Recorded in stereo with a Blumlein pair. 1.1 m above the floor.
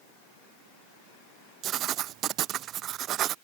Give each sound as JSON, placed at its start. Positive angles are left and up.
{"t": 1.6, "sound": "writing", "azimuth_deg": -30}